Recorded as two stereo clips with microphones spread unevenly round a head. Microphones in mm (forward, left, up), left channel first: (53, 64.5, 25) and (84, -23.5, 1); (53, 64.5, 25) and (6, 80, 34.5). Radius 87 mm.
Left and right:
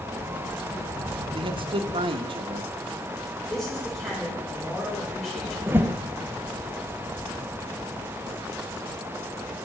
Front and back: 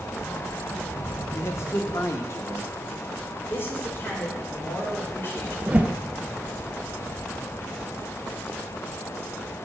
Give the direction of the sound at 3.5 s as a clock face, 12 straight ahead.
11 o'clock.